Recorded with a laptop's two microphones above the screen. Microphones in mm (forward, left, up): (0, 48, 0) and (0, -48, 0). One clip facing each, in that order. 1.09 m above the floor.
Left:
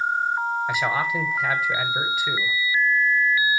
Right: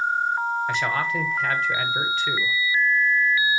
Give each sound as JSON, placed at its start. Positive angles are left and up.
{"t": 0.7, "sound": "a man speaking", "side_deg": 5, "distance_m": 0.7}